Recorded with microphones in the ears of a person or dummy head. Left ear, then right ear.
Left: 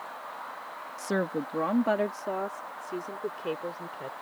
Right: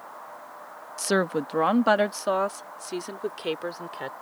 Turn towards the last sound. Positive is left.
turn(degrees=-50)  # may be behind; listen again after turning